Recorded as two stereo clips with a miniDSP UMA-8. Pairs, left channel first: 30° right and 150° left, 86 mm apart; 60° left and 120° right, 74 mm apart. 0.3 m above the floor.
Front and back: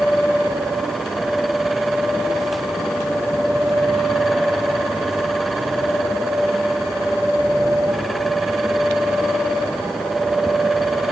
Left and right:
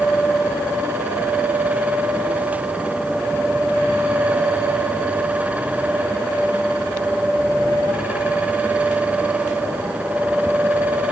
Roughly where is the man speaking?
No man speaking in this recording.